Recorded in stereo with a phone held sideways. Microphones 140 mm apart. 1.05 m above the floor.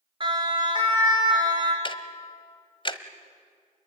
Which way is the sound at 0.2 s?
35° right (ahead or behind).